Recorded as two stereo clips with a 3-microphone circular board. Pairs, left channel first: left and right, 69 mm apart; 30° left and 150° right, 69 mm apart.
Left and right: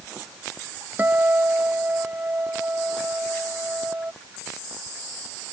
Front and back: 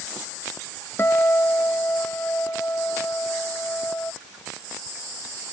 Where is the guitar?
30° right.